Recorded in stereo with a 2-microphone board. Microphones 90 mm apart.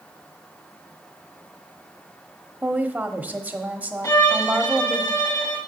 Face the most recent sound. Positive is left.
turn(degrees=45)  # may be behind; listen again after turning